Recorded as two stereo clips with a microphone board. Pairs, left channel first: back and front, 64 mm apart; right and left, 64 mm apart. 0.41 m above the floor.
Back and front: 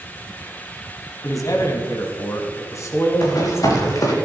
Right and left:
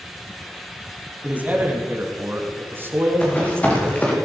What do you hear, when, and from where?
1.2 s a man speaking: 155° left, 3 m; by 4.2 s 135° left, 4 m
3.2 s running footsteps: 155° right, 5 m